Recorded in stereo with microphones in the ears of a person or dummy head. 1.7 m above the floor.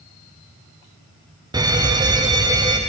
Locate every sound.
1.5 s a fire alarm: 20° right (ahead or behind), 1.9 m